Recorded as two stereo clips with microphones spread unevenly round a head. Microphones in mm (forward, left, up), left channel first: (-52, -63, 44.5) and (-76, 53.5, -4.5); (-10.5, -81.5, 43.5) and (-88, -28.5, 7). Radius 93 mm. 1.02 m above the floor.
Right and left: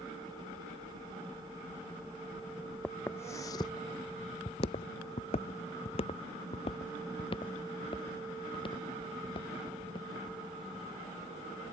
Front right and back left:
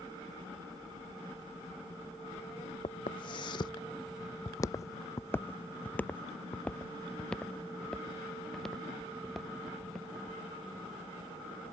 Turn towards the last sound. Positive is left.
turn(degrees=-120)